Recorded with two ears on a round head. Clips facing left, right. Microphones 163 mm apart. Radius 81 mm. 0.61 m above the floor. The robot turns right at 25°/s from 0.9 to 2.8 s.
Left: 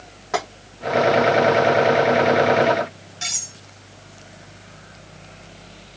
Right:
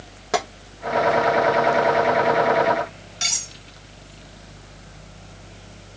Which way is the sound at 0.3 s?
45° right (ahead or behind).